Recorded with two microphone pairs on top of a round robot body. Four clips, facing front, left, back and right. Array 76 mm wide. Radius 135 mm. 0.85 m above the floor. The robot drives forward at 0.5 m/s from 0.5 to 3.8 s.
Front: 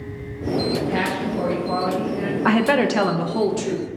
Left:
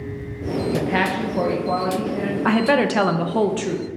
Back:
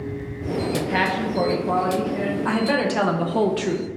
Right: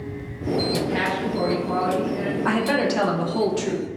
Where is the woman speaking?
35° left, 0.6 m; by 3.9 s 155° left, 0.6 m.